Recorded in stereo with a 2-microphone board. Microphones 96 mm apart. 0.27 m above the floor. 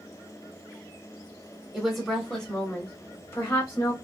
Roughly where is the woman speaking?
Centre.